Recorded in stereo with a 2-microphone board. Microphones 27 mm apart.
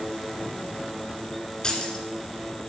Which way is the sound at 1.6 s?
25° left (ahead or behind).